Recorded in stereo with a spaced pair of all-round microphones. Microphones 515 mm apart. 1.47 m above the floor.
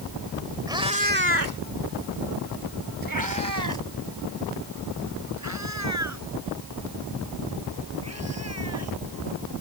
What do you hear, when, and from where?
0.7 s a cat meowing: 5° right (ahead or behind); by 9.0 s 30° right (ahead or behind)